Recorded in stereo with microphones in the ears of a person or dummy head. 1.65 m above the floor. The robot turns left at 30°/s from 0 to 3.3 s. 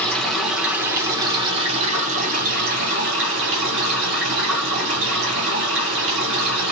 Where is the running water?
10° left, 1.0 m; by 6.7 s 90° right, 1.0 m.